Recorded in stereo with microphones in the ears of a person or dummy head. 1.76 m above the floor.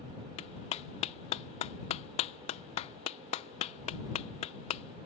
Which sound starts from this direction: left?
A clap, at 0.4 s.